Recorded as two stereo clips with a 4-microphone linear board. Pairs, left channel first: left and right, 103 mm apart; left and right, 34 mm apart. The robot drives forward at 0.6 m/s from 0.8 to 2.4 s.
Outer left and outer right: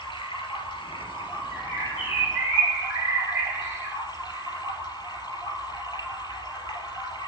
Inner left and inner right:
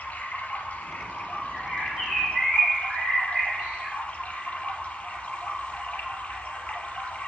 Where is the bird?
25° right (ahead or behind), 6 m.